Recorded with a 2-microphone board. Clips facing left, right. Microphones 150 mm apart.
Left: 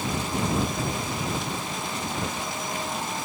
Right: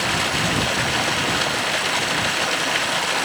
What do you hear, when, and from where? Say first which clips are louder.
0.0 s running water: right 3 dB; 75° right (ahead or behind)